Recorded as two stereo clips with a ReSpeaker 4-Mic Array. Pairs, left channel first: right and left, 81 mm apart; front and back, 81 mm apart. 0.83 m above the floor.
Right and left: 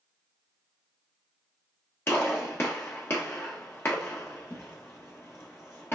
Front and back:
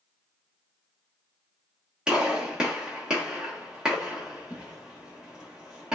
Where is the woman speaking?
No woman speaking in this recording.